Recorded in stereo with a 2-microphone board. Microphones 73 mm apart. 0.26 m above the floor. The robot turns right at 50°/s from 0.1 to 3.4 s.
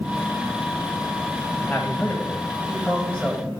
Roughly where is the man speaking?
Left.